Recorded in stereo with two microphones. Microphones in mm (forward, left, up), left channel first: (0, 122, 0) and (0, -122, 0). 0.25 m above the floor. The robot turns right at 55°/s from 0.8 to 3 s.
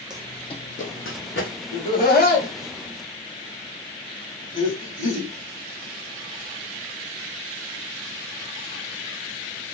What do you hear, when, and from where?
0.1 s running footsteps: 15° right (ahead or behind), 0.6 m; by 1.6 s 50° left (ahead or behind), 1.2 m
1.7 s laughter: 30° left (ahead or behind), 1.2 m; by 5.3 s 35° left (ahead or behind), 1.2 m